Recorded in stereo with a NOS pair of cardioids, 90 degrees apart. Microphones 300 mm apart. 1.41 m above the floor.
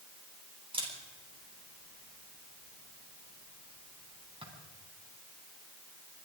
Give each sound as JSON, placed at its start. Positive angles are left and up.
{"t": 0.7, "sound": "a camera shutter", "azimuth_deg": -20, "distance_m": 9.5}